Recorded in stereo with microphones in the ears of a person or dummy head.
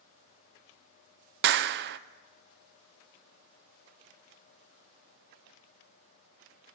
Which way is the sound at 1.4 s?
60° right (ahead or behind).